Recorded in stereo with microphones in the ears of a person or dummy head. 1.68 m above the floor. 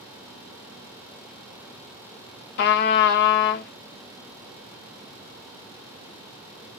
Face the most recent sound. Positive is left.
turn(degrees=55)  # may be behind; listen again after turning